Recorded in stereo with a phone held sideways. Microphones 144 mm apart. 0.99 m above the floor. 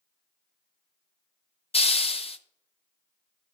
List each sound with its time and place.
1.7 s a hiss: 45° left (ahead or behind), 0.5 m